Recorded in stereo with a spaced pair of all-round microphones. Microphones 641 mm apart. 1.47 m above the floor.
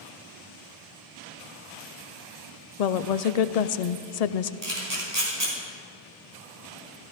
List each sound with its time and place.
2.8 s a woman speaking: 70° left (ahead or behind), 0.6 m
4.6 s a camera shutter: 75° right (ahead or behind), 4.5 m